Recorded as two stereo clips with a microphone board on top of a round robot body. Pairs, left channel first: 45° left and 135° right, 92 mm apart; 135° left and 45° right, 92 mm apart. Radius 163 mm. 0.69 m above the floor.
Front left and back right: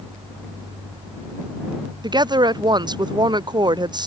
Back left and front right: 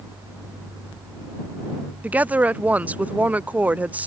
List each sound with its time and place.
2.0 s a woman speaking: 115° right